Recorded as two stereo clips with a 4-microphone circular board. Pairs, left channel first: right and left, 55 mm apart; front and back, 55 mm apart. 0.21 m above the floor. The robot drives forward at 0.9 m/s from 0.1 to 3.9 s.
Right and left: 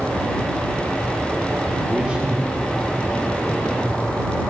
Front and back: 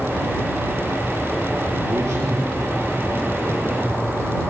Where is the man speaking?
160° left, 3.5 m; by 4.0 s 165° left, 5.5 m.